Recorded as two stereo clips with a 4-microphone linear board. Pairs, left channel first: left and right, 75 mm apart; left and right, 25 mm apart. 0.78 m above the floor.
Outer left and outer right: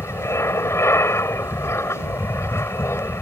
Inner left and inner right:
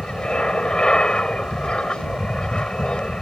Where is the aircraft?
35° left (ahead or behind).